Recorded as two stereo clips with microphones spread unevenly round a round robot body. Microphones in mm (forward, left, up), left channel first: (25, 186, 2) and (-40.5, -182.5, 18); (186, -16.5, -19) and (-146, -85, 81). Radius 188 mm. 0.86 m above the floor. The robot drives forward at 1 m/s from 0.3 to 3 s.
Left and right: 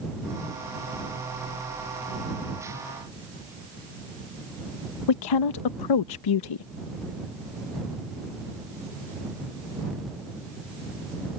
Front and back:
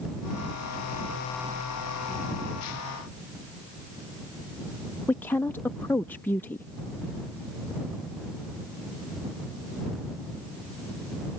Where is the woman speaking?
85° left.